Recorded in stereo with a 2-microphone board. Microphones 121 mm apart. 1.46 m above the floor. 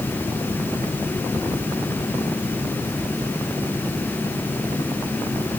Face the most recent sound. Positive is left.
No sound to turn to.